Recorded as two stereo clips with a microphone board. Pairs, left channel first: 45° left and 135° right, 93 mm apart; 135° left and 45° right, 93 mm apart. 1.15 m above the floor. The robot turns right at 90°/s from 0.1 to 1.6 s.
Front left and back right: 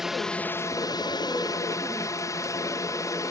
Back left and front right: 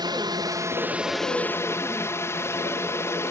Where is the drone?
50° right; by 3.3 s 85° left.